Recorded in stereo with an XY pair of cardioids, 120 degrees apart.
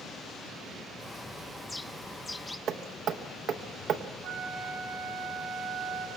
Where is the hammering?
65° right, 0.8 m.